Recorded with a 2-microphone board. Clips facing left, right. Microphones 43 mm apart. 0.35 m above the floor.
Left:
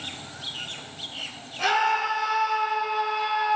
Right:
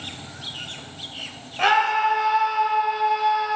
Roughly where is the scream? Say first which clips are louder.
Right 4 dB; right.